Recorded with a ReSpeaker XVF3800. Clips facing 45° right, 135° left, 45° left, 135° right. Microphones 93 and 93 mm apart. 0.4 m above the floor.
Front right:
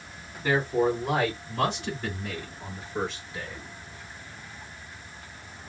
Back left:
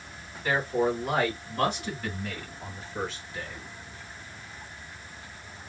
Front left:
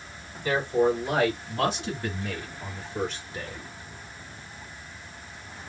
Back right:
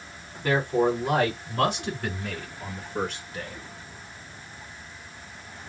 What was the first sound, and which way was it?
A man speaking, 110° right.